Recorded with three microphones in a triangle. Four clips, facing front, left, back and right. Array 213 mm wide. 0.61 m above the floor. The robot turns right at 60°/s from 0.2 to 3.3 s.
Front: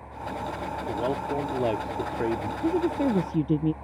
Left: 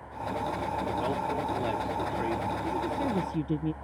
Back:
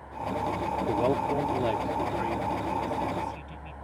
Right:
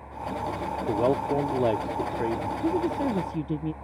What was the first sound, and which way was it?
A man speaking, 115° right.